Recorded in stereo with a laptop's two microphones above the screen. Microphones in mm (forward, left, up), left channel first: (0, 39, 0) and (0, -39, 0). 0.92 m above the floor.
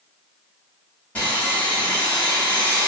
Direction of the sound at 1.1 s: 20° left (ahead or behind).